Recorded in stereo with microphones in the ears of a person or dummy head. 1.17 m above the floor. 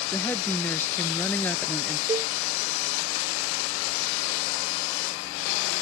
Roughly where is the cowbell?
Centre.